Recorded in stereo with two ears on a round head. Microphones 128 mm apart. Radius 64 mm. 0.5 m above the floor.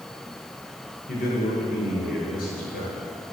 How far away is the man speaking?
About 8 m.